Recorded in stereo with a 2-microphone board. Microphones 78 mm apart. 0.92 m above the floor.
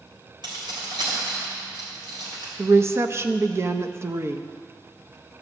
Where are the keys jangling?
80° right, 3.5 m.